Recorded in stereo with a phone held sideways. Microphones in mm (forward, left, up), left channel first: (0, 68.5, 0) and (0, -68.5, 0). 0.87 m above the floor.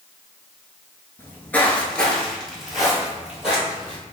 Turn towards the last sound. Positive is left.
turn(degrees=-5)  # may be behind; listen again after turning